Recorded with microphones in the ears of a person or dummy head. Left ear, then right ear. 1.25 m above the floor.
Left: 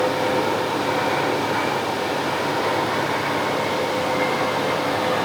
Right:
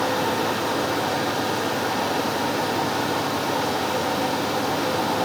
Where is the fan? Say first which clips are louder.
Left 2 dB; 20° right (ahead or behind), 1.4 m.